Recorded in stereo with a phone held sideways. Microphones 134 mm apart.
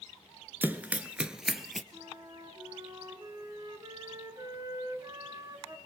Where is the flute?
30° right (ahead or behind), 3 m.